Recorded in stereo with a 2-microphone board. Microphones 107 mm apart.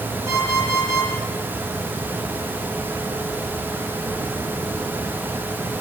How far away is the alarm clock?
About 5.5 m.